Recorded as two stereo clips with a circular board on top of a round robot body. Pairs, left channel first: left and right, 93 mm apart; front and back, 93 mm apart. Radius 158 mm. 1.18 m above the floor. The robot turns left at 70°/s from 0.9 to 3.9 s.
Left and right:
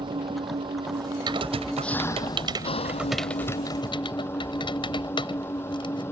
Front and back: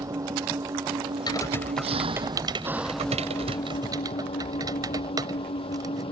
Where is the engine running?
125° right; by 6.1 s 25° left.